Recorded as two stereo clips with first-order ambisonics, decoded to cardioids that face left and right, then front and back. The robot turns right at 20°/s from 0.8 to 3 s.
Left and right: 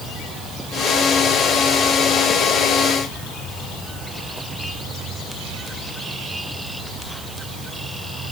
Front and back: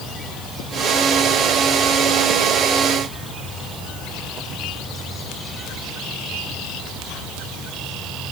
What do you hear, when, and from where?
Only background noise.